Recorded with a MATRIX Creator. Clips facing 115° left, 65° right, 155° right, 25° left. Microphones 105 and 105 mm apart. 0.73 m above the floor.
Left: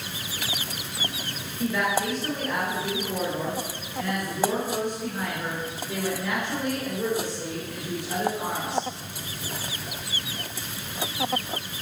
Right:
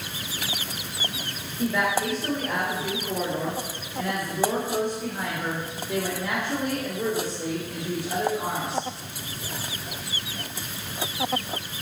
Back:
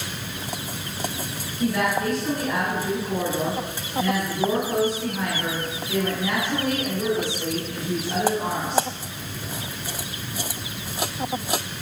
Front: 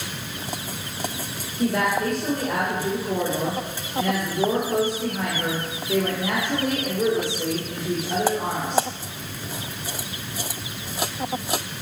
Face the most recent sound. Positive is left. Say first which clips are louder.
# right 1 dB, front 1 dB
turn(degrees=-5)